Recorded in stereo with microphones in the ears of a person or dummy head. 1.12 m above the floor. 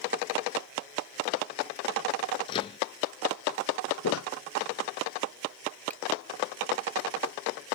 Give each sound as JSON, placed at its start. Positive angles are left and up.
{"t": 2.5, "sound": "a microwave", "side_deg": 30}
{"t": 4.0, "sound": "footsteps", "side_deg": 80}
{"t": 5.9, "sound": "a finger snap", "side_deg": 10}